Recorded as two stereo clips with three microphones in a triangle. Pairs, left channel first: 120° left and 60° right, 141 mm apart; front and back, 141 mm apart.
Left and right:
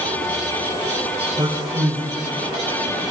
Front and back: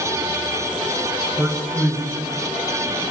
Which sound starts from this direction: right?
A man speaking, at 1.4 s.